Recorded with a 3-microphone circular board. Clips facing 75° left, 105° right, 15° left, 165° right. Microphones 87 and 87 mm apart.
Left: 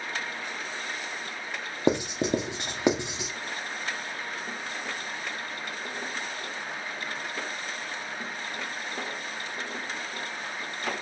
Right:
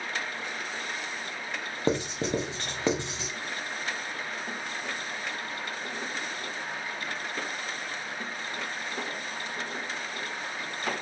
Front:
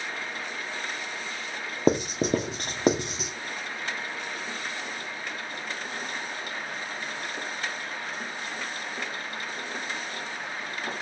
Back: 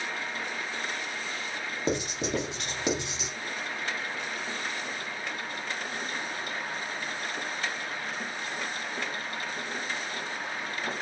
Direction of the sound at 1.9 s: 10° left.